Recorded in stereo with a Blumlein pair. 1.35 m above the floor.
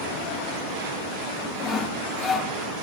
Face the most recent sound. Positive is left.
turn(degrees=20)